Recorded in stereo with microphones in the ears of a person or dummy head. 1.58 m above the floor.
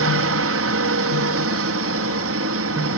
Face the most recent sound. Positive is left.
turn(degrees=-65)  # may be behind; listen again after turning